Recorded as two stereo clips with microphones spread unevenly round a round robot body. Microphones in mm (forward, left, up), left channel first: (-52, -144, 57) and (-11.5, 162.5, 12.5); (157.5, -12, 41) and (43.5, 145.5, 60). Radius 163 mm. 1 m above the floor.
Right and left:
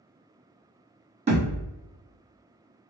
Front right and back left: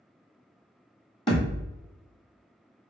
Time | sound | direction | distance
1.3 | a thud | 10° left | 1.5 m